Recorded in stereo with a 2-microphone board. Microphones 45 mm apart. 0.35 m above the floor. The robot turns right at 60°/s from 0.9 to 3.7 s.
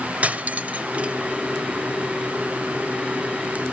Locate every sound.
0.2 s cutlery clinking: 35° right (ahead or behind), 0.7 m; by 1.1 s 25° right (ahead or behind), 0.7 m